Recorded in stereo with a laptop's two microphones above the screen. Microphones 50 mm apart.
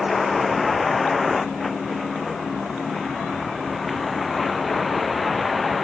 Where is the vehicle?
Centre (ahead or behind).